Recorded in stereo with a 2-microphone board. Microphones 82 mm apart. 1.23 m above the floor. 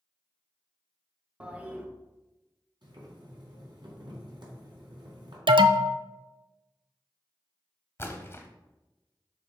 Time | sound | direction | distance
1.4 | a toilet flushing | 15° right (ahead or behind) | 1.0 m
2.8 | boiling | 75° right (ahead or behind) | 3 m
5.5 | an alarm | 85° right | 0.5 m
8.0 | a splash | 30° left (ahead or behind) | 1.2 m